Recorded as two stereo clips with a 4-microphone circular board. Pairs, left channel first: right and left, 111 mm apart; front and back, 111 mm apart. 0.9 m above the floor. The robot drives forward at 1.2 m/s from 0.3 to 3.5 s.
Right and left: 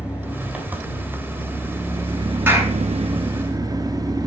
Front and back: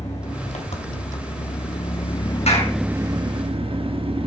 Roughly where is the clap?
Ahead.